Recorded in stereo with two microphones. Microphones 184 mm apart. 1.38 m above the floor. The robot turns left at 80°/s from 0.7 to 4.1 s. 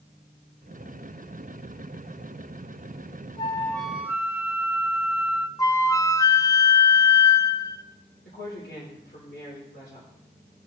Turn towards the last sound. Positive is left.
turn(degrees=85)